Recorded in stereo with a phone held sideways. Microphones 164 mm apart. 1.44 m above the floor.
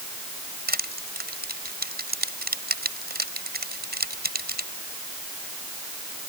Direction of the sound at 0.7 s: 75° right (ahead or behind).